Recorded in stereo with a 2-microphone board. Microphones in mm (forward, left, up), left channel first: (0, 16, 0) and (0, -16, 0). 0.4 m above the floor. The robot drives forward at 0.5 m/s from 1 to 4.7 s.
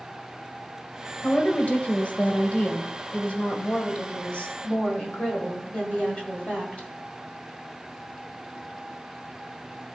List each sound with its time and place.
1.2 s a woman speaking: 45° left (ahead or behind), 1.5 m; by 6.9 s 40° left (ahead or behind), 1.7 m